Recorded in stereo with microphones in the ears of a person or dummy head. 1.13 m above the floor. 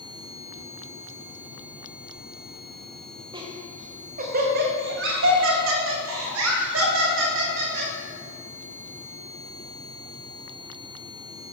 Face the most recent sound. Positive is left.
turn(degrees=-60)  # may be behind; listen again after turning